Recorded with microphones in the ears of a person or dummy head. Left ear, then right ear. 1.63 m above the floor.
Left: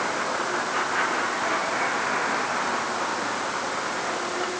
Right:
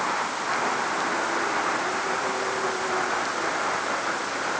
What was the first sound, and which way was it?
Only background noise.